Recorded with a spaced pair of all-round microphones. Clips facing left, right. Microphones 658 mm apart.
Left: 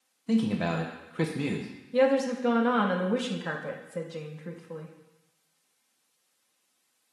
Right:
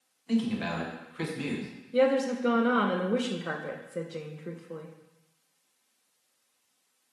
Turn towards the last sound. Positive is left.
turn(degrees=25)  # may be behind; listen again after turning